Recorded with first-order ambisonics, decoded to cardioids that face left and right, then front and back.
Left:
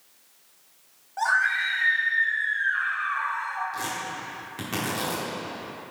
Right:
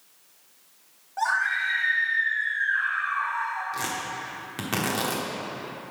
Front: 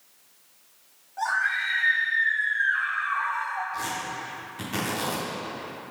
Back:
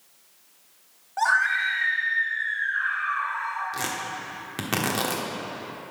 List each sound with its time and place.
1.2 s a scream: 175° left, 0.8 m; by 3.6 s 30° left, 2 m
3.7 s tearing paper: 160° right, 1.3 m